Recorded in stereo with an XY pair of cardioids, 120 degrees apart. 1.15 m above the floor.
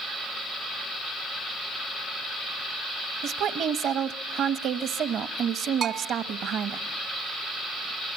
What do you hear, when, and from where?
3.2 s a woman speaking: 60° right, 1.1 m
5.8 s a bell: 50° right, 1.1 m